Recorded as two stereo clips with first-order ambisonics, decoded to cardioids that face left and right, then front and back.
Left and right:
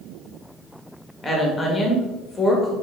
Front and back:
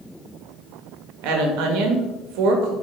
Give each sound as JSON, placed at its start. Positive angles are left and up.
{"t": 1.2, "sound": "a woman speaking", "azimuth_deg": 165, "distance_m": 1.3}